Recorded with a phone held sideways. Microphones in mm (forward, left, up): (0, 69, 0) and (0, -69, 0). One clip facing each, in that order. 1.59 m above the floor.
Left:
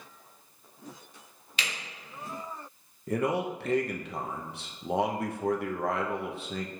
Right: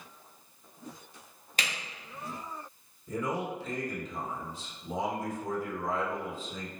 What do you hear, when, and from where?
1.6 s a camera shutter: 45° right (ahead or behind), 1.0 m
3.1 s a man speaking: 70° left (ahead or behind), 0.5 m